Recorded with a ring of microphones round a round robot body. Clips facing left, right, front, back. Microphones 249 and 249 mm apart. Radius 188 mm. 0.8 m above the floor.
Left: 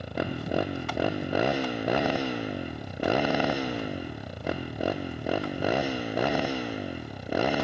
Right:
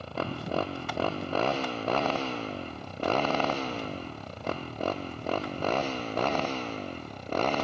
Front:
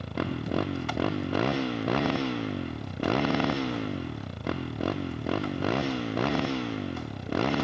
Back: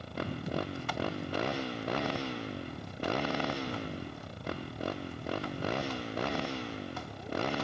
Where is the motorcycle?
15° left; by 7.6 s 10° left.